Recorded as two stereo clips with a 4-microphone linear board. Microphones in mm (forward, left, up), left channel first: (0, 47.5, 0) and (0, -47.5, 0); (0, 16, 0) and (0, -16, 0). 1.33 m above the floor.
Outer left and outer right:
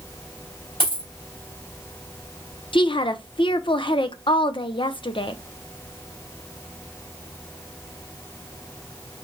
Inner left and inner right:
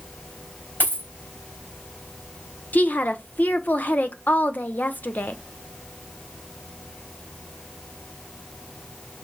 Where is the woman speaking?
60° left (ahead or behind), 0.6 m.